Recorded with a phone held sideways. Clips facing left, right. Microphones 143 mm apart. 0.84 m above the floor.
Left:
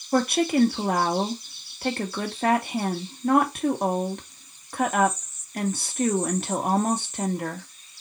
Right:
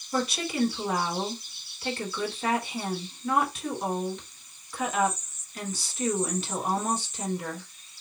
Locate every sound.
0.1 s a woman speaking: 55° left (ahead or behind), 1.4 m